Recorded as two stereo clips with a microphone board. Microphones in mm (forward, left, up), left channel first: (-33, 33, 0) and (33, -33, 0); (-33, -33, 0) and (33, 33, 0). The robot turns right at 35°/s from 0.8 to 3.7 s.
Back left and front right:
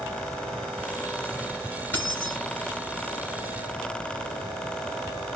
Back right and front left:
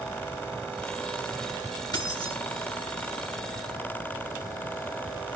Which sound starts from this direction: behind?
Keys jangling, at 1.9 s.